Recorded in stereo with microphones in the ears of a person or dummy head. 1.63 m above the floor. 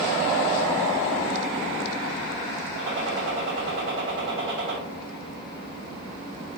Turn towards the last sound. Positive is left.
turn(degrees=-65)  # may be behind; listen again after turning